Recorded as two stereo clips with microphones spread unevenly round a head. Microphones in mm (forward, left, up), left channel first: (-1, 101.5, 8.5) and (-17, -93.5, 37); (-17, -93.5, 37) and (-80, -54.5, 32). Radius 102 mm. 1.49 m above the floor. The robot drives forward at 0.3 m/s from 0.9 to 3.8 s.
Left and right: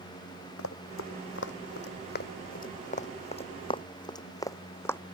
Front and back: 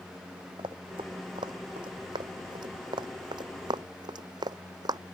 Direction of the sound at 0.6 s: 100° left.